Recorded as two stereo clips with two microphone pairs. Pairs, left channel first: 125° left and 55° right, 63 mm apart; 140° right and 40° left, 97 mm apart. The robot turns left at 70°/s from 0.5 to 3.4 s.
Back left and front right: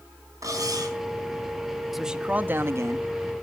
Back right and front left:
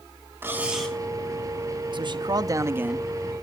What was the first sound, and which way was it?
Cutlery clinking, 30° right.